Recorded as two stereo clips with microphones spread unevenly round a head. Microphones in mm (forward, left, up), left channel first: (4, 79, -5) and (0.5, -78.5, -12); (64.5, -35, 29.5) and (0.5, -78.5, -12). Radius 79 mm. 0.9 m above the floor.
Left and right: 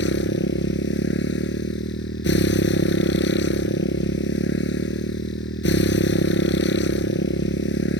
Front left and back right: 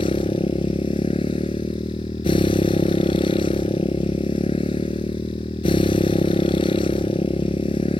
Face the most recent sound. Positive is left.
turn(degrees=70)